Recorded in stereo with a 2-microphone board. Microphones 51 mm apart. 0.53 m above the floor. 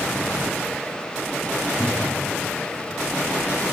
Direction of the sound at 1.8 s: 25° left (ahead or behind).